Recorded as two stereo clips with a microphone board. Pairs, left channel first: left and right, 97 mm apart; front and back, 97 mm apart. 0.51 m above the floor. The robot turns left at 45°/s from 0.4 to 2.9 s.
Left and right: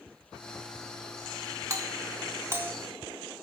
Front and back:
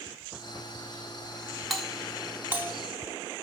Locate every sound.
1.7 s a doorbell: 90° right, 1.4 m; by 2.7 s 135° right, 1.4 m